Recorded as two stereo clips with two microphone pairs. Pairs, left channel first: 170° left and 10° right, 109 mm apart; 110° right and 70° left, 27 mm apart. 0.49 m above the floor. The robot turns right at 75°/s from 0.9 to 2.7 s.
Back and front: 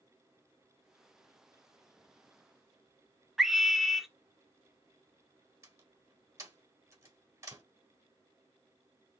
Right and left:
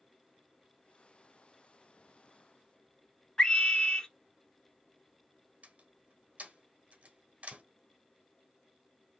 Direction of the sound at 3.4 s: 95° right.